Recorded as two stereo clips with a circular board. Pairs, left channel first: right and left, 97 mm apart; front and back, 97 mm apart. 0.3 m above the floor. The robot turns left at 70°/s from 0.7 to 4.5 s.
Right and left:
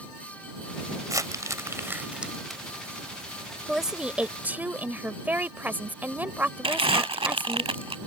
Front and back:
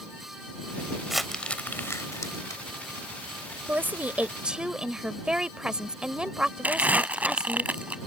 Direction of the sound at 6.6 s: 105° left.